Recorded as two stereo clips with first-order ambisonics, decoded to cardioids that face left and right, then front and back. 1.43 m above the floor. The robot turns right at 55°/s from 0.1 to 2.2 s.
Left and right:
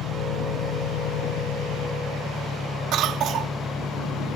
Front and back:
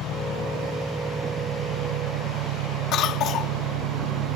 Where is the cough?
45° right.